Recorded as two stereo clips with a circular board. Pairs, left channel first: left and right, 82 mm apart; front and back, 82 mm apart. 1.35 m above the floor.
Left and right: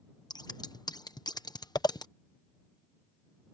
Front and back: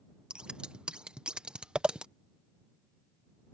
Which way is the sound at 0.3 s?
105° left.